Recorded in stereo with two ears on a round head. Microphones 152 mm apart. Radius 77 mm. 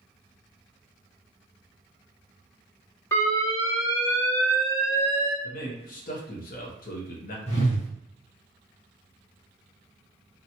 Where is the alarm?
15° left (ahead or behind), 0.8 m.